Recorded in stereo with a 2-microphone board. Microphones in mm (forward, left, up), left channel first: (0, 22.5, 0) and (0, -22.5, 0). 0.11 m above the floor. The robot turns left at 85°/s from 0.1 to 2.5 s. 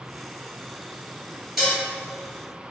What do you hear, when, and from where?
1.6 s dishes clattering: 5° right (ahead or behind), 1.4 m; by 1.8 s 20° right (ahead or behind), 1.4 m